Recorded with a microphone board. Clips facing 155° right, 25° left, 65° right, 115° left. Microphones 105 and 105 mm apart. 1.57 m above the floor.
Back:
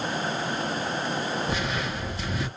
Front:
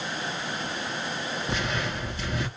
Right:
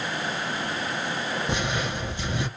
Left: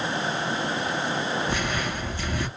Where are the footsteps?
75° right, 1.6 m.